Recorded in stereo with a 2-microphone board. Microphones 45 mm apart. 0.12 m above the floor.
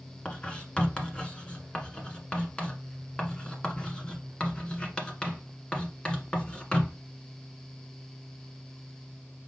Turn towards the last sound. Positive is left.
turn(degrees=20)  # may be behind; listen again after turning